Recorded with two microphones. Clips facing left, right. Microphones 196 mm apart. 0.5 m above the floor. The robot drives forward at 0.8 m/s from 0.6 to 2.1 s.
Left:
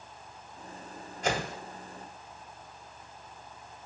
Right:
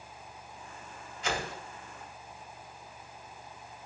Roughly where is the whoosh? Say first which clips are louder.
Left 4 dB; left.